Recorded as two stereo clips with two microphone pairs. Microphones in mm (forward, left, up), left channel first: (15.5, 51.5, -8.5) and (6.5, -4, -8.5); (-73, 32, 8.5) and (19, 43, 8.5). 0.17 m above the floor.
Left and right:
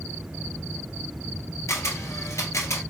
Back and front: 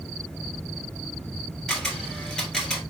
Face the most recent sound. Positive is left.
turn(degrees=105)